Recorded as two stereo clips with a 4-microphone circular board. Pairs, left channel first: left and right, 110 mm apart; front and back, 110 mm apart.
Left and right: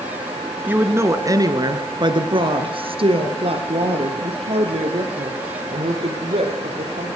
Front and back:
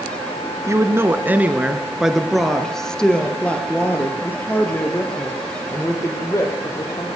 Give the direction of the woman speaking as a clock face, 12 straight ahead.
5 o'clock.